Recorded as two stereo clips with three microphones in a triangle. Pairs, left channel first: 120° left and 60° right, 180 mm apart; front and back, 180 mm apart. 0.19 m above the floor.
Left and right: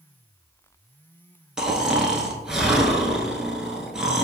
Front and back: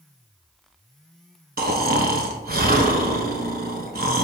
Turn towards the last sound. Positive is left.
turn(degrees=-145)